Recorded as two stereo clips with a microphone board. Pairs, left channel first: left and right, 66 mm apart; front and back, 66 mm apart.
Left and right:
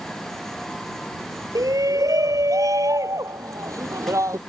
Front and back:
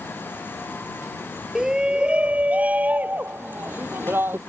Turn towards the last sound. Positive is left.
turn(degrees=-125)